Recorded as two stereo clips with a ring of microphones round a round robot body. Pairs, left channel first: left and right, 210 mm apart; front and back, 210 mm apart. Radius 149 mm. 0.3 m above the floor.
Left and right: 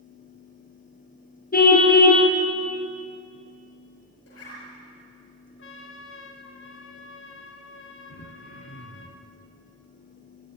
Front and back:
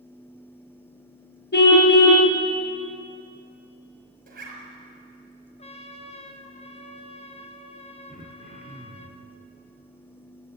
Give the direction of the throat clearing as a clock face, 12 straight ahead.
9 o'clock.